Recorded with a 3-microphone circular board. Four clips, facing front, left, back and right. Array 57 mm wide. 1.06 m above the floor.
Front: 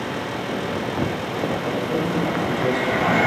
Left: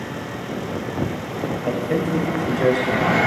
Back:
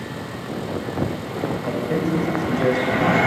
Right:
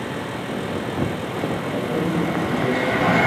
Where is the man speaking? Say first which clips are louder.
Left 4 dB, even; 95° left, 6 m; by 3.2 s 115° left, 5 m.